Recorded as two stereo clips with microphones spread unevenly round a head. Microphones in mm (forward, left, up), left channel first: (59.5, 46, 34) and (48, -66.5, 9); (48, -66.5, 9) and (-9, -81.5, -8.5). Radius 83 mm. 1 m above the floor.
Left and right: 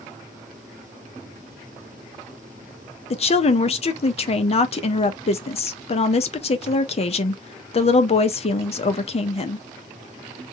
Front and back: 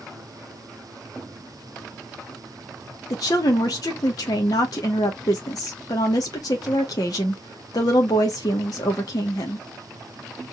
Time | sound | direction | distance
3.1 | a woman speaking | 60° left | 0.8 m